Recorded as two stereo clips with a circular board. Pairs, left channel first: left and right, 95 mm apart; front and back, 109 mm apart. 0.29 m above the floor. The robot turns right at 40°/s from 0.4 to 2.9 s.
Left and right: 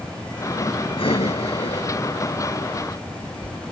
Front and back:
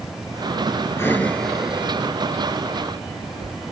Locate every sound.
1.0 s breathing: 65° left; by 3.6 s 145° left